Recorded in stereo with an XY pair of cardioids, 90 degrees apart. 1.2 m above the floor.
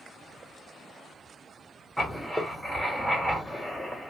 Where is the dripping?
I don't hear dripping.